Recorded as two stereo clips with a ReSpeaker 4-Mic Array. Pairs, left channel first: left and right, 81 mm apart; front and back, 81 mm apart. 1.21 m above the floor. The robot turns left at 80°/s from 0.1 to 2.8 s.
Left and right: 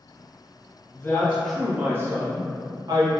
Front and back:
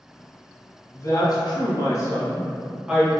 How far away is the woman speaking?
About 0.8 m.